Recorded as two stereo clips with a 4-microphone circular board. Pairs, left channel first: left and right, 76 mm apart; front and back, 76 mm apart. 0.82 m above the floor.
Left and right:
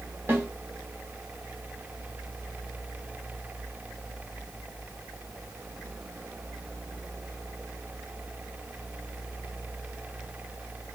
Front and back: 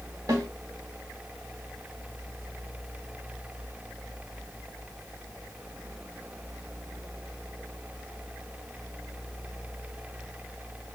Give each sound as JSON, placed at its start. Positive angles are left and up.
{"t": 0.3, "sound": "a snare drum", "azimuth_deg": -145, "distance_m": 0.8}